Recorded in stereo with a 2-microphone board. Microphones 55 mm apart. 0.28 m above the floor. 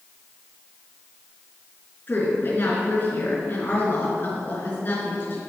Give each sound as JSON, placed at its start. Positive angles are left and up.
{"t": 2.1, "sound": "a woman speaking", "side_deg": 40, "distance_m": 4.0}